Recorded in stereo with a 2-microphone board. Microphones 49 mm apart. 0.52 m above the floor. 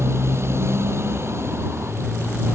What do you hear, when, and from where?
0.0 s a motorcycle: 65° right (ahead or behind)